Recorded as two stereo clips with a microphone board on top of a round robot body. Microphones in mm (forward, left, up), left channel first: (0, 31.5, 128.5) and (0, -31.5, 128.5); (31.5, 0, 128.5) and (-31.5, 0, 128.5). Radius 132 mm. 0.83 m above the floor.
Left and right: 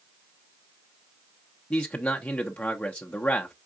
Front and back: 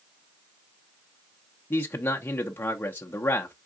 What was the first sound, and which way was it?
A man speaking, 30° left.